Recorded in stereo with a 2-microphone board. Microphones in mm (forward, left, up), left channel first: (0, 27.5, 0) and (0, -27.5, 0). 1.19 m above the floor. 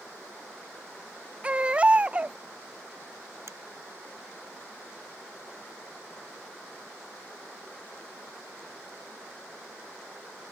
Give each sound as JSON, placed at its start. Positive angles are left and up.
{"t": 1.4, "sound": "a baby crying", "side_deg": -20}
{"t": 3.5, "sound": "a finger snap", "side_deg": -60}